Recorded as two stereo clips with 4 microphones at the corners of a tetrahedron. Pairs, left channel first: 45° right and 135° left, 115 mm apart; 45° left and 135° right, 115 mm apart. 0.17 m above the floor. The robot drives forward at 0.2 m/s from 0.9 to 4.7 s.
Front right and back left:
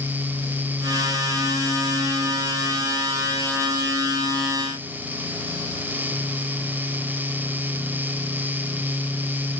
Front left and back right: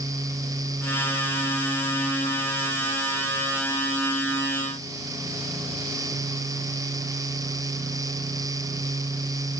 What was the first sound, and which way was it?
Only background noise.